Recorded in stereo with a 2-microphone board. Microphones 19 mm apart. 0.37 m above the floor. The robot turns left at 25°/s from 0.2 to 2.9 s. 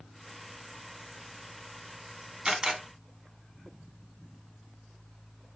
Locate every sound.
2.5 s a camera shutter: 35° right (ahead or behind), 0.6 m; by 2.8 s 30° right (ahead or behind), 0.6 m